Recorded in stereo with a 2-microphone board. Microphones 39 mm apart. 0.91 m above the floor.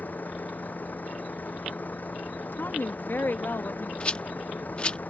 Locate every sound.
0.0 s a vehicle: 45° left (ahead or behind)
2.5 s a woman speaking: 55° left (ahead or behind)
4.0 s a rattle: 25° left (ahead or behind)